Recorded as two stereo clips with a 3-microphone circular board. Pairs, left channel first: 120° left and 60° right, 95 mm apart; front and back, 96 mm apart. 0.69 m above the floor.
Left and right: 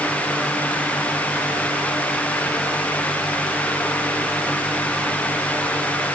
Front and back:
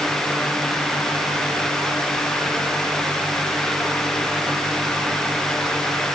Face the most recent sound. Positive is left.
No sound to turn to.